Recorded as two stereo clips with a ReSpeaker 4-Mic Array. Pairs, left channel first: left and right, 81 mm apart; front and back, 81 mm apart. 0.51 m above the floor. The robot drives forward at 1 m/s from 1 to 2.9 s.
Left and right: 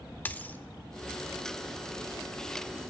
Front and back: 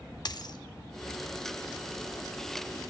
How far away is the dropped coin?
About 0.6 m.